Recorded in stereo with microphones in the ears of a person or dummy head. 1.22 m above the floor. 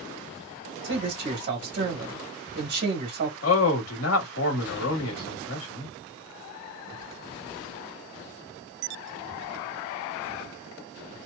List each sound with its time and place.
0.8 s a man speaking: 50° right (ahead or behind), 1.4 m
3.4 s a man speaking: 75° left (ahead or behind), 1.2 m